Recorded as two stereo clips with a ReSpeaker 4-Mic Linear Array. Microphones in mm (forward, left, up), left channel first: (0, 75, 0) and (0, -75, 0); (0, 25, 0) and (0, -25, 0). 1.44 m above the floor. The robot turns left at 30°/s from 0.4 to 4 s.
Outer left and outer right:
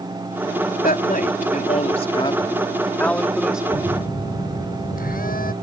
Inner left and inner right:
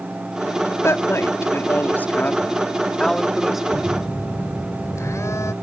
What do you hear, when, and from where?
0.8 s a woman speaking: 75° left; by 3.6 s 5° right
3.7 s a phone buzzing: 70° left (ahead or behind); by 5.5 s 80° left